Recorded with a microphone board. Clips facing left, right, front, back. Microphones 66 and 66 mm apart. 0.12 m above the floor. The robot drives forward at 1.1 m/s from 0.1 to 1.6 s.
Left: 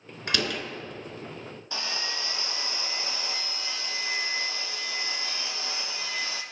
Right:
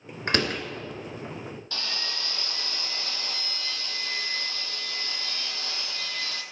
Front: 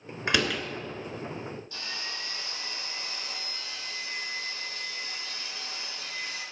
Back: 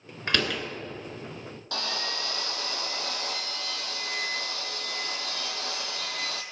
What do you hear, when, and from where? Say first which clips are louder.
0.3 s a door slam: right 3 dB, front 1 dB; 70° right, 1.5 m; by 0.6 s 95° right, 1.4 m
1.7 s sawing: left 4 dB, back 6 dB; 165° left, 1.0 m